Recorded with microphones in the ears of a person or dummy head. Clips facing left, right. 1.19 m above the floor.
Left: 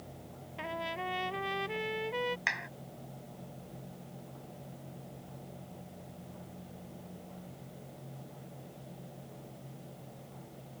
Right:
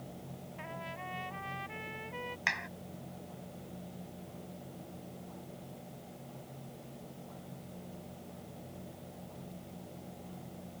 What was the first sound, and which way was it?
A trumpet, 60° left (ahead or behind).